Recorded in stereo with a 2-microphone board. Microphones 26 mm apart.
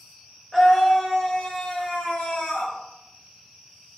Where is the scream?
Centre (ahead or behind), 1.2 m; by 2.7 s 60° left (ahead or behind), 2 m.